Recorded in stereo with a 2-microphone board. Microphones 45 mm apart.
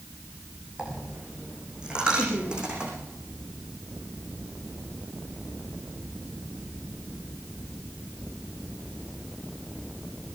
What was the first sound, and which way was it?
A dropped coin, 20° right (ahead or behind).